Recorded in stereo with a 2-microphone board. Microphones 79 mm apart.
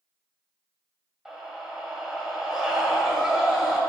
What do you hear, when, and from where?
1.2 s a scream: 5° right (ahead or behind), 1.8 m